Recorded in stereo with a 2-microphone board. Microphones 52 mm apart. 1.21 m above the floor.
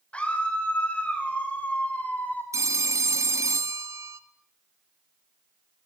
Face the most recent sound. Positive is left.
turn(degrees=-70)  # may be behind; listen again after turning